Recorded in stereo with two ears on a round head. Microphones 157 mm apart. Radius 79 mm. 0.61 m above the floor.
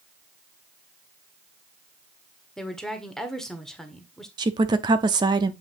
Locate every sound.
2.6 s a woman speaking: 5° left (ahead or behind), 1.6 m
4.4 s a woman speaking: 25° right (ahead or behind), 0.7 m